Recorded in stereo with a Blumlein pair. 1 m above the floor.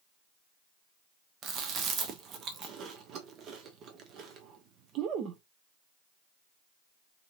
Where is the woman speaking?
I don't hear a woman speaking.